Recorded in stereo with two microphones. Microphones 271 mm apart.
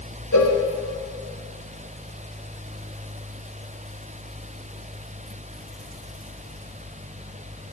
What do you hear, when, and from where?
0.3 s a cowbell: 85° left, 0.7 m